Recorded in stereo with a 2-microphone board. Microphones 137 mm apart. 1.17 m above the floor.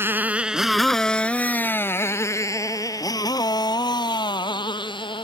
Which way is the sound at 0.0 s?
15° right (ahead or behind).